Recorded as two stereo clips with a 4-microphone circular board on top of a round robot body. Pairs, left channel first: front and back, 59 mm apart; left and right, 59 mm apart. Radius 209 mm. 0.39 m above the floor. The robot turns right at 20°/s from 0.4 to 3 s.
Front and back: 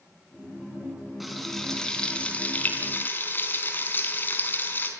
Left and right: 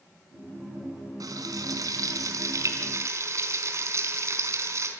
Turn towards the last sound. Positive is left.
turn(degrees=-55)